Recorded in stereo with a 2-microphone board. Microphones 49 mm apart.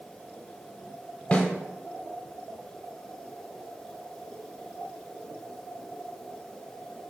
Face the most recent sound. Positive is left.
turn(degrees=25)  # may be behind; listen again after turning